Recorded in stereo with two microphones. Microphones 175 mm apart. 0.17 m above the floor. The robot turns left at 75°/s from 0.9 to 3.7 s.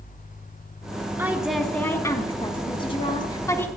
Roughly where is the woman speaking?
Centre.